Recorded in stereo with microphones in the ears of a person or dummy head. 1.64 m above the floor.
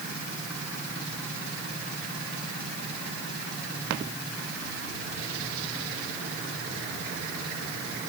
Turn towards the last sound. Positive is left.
No sound to turn to.